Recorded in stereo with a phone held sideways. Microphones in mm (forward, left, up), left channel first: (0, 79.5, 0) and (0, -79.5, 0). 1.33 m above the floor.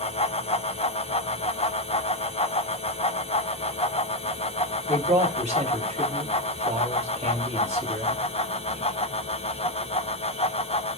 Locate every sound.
0.0 s a fan: 40° left (ahead or behind), 0.7 m
4.9 s a man speaking: 45° right (ahead or behind), 3.5 m